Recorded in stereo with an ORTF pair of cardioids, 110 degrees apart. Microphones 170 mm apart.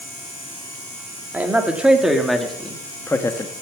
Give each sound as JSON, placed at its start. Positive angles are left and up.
{"t": 1.3, "sound": "a man speaking", "azimuth_deg": -10, "distance_m": 2.0}